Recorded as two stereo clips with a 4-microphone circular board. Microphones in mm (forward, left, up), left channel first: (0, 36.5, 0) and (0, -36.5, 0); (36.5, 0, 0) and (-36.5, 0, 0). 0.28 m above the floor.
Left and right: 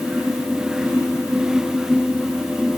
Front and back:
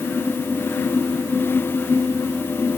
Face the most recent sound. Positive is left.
No sound to turn to.